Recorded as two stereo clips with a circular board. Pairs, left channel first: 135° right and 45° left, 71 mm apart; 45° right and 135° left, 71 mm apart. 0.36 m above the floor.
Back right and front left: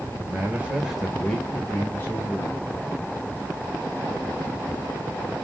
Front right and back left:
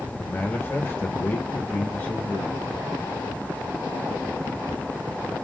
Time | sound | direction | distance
0.2 | a man speaking | 5° left | 1.5 m